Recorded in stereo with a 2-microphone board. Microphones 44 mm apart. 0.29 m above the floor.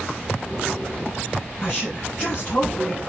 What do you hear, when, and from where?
1.6 s a woman speaking: 20° left (ahead or behind), 4.5 m